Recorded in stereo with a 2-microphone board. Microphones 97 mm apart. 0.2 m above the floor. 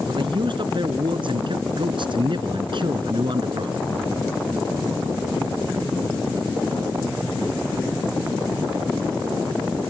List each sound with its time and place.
0.1 s a man speaking: 60° right (ahead or behind)